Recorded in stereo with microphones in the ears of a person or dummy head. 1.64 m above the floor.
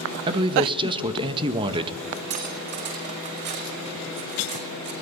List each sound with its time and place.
0.3 s a man speaking: 25° right (ahead or behind), 1.6 m
2.3 s cutlery clinking: 55° right (ahead or behind), 6 m